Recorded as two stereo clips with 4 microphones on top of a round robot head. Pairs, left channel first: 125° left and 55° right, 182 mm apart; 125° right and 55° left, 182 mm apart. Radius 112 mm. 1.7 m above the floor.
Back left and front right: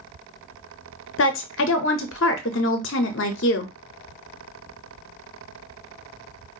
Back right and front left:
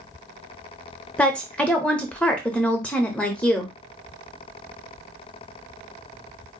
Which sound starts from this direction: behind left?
A woman speaking, at 1.2 s.